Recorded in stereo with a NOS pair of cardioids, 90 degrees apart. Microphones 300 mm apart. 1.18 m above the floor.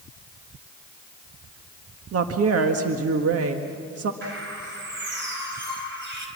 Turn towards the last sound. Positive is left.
turn(degrees=-40)